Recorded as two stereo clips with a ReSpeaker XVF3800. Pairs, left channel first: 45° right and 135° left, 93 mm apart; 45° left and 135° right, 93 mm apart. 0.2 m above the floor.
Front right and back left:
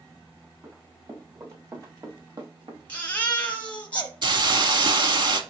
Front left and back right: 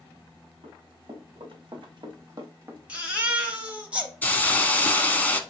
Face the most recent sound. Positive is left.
turn(degrees=115)